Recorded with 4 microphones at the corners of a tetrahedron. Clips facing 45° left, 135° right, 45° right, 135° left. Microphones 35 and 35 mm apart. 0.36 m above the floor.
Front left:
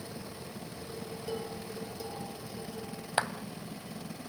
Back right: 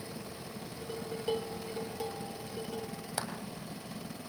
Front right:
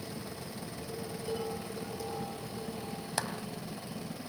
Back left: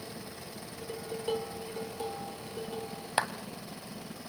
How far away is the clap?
About 2.0 m.